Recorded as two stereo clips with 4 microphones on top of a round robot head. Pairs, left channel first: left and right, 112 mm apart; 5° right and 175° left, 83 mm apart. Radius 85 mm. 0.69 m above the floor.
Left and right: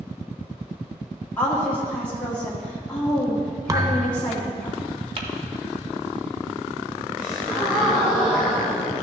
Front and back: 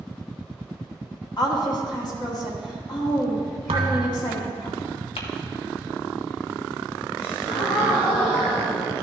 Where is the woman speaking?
15° left, 1.9 m.